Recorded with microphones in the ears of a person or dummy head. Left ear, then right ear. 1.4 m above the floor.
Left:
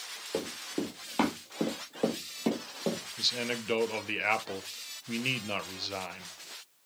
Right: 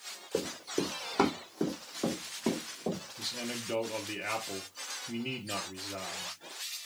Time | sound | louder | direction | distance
0.3 | running footsteps | right 2 dB | 15° left (ahead or behind) | 1.5 m
3.2 | a man speaking | left 7 dB | 35° left (ahead or behind) | 0.7 m